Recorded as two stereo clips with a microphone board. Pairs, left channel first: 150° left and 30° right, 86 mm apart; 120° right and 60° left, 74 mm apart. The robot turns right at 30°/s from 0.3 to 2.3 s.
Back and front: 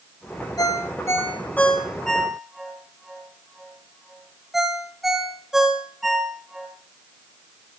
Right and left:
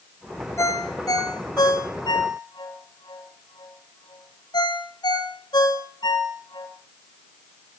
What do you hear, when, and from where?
0.6 s a ringtone: 170° right, 3 m; by 6.7 s 120° right, 3 m